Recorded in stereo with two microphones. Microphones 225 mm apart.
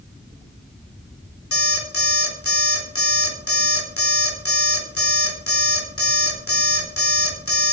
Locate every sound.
1.5 s an alarm clock: 75° left (ahead or behind), 3.5 m